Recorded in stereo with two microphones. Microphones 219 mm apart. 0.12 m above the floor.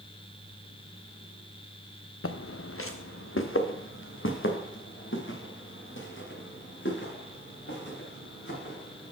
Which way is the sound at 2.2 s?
80° left.